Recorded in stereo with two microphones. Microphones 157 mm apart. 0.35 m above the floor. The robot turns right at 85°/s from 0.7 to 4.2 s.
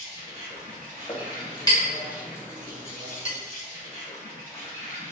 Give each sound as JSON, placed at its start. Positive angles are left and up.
{"t": 0.0, "sound": "an insect", "azimuth_deg": -135, "distance_m": 1.8}
{"t": 1.1, "sound": "a clink", "side_deg": 30, "distance_m": 1.0}